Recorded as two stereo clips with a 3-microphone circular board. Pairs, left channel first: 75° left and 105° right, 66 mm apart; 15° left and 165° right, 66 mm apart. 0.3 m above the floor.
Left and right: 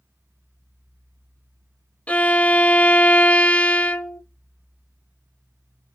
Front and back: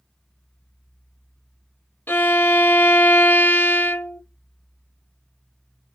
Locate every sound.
2.1 s a violin: 30° left, 0.5 m